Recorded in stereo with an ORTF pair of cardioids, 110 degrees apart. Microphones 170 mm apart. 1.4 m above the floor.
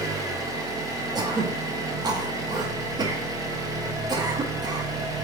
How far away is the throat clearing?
About 0.6 m.